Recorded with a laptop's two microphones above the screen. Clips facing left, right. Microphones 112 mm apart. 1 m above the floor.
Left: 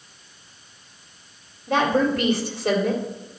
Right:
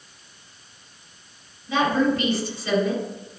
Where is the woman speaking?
60° left (ahead or behind), 2.5 m.